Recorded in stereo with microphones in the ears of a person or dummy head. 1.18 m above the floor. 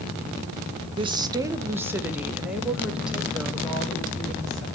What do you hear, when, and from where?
1.0 s a woman speaking: 30° right (ahead or behind), 0.7 m; by 4.7 s centre (ahead or behind), 2.5 m